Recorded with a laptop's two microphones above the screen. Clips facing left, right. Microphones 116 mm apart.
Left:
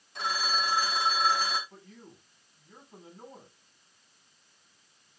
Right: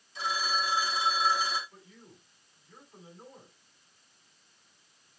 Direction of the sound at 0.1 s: 60° left (ahead or behind).